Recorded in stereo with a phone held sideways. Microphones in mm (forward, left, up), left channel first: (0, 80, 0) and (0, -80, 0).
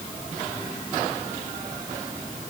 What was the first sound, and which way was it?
Only background noise.